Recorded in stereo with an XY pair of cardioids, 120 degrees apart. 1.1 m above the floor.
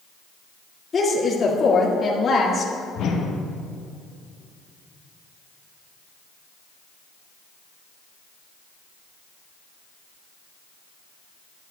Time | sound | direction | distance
0.9 | a woman speaking | 35° left | 1.9 m
3.0 | a whoosh | 65° left | 1.2 m